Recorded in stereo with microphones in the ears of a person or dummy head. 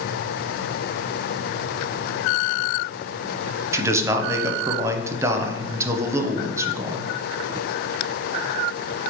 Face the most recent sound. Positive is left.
turn(degrees=-15)  # may be behind; listen again after turning